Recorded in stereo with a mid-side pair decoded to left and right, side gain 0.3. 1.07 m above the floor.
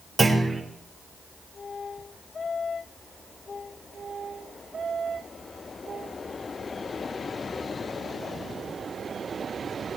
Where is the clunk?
35° right, 5.5 m.